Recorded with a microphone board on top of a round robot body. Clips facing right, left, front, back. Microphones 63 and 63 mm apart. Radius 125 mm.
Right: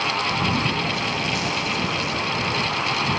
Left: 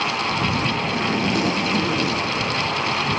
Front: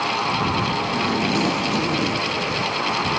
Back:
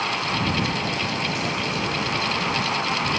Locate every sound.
0.9 s a zipper: 35° left